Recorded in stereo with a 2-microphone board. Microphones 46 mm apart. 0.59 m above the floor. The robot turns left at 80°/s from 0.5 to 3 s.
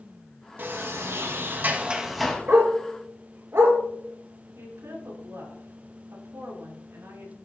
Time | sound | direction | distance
0.6 | a sliding door | 50° right | 2.5 m
2.5 | a dog barking | 60° right (ahead or behind) | 3.5 m
4.6 | a woman speaking | 80° right | 7.5 m